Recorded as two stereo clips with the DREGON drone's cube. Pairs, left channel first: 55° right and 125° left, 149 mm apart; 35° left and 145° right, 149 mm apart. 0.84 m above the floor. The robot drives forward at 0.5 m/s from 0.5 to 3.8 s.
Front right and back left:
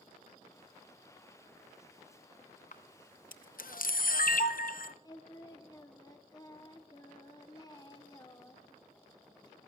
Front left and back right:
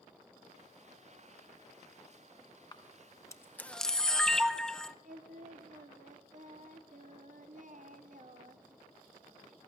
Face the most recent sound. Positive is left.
turn(degrees=-120)